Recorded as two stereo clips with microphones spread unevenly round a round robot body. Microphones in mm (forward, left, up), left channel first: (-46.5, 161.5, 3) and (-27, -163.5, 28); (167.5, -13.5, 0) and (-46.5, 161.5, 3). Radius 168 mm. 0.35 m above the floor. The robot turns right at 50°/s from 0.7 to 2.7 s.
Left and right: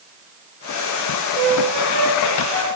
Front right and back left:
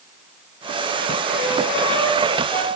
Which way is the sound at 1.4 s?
95° right.